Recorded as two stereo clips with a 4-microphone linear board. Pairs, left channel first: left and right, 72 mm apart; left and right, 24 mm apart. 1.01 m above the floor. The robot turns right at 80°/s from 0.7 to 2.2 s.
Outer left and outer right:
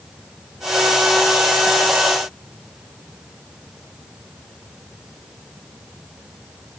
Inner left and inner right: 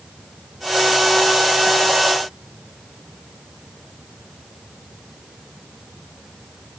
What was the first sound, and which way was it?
Only background noise.